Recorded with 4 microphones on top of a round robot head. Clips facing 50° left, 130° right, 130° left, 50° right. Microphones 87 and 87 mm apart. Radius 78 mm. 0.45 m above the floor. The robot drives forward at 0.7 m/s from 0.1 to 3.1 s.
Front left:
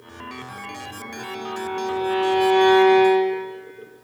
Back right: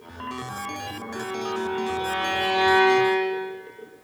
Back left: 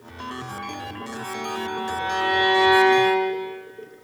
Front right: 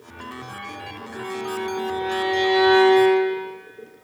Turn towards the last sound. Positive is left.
turn(degrees=-165)